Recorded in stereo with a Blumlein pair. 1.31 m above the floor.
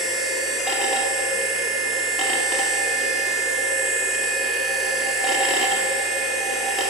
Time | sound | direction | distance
0.0 | a machine running | 25° left | 2 m